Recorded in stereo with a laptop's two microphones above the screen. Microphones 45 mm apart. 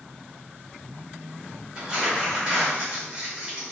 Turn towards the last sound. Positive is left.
turn(degrees=-20)  # may be behind; listen again after turning